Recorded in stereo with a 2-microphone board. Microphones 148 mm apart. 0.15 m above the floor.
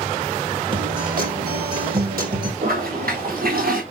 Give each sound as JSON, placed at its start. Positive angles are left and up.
{"t": 0.7, "sound": "a guitar", "side_deg": -75, "distance_m": 5.0}
{"t": 2.6, "sound": "a toilet flushing", "side_deg": -70, "distance_m": 5.5}